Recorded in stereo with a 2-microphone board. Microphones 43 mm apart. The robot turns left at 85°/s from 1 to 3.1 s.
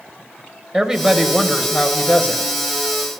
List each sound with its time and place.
0.7 s a woman speaking: 160° right, 1.0 m; by 2.5 s 80° left, 1.0 m